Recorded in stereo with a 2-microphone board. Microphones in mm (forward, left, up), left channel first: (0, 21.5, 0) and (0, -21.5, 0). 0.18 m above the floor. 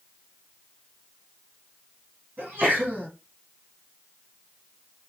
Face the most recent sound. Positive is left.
turn(degrees=-50)  # may be behind; listen again after turning